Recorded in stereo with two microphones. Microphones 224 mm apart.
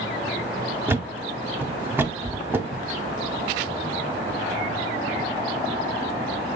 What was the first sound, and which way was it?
A thud, 10° right (ahead or behind).